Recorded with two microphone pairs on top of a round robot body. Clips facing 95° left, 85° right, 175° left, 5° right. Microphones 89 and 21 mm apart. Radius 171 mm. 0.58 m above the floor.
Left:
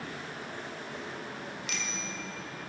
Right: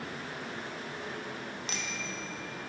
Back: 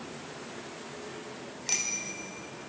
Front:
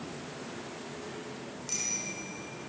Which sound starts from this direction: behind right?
A bicycle bell, at 1.7 s.